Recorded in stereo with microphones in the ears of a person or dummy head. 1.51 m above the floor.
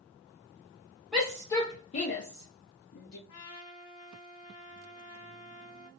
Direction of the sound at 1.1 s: Centre (ahead or behind).